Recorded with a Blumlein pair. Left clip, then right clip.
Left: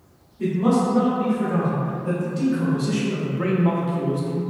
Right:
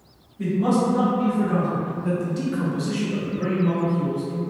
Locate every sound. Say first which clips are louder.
0.4 s a man speaking: left 1 dB; 55° right, 1.4 m; by 4.4 s 55° left, 1.0 m